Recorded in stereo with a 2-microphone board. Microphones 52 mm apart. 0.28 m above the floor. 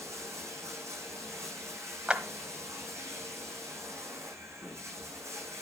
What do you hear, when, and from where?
0.0 s running water: 65° right (ahead or behind), 9.5 m
2.1 s a clap: 20° right (ahead or behind), 1.4 m